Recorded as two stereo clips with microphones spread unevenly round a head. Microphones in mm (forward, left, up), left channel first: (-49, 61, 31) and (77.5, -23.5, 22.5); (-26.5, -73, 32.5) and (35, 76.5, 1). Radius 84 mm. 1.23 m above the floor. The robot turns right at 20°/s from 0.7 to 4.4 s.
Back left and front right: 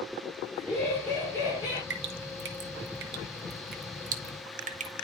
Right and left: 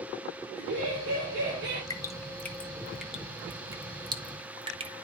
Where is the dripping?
45° right, 0.9 m; by 5.0 s 5° left, 0.9 m.